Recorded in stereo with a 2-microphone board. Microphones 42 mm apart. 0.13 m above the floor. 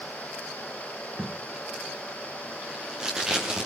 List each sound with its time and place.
1.2 s tape being pulled: 15° right (ahead or behind), 7 m